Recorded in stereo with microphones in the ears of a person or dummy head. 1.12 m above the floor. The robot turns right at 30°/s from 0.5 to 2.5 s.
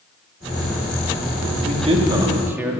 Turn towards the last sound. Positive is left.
turn(degrees=-15)  # may be behind; listen again after turning